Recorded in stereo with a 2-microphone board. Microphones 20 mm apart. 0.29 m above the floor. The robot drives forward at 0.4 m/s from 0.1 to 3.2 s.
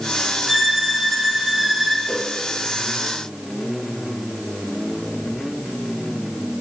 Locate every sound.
0.5 s a violin: 10° right (ahead or behind), 0.9 m; by 2.0 s 5° right (ahead or behind), 1.3 m
2.1 s a whoosh: 70° left (ahead or behind), 3.5 m